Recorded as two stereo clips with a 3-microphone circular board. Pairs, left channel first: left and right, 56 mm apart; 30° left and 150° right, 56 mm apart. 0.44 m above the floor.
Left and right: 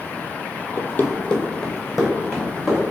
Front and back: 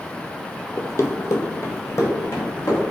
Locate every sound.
0.8 s running footsteps: 60° left, 0.7 m; by 2.8 s 10° right, 2.5 m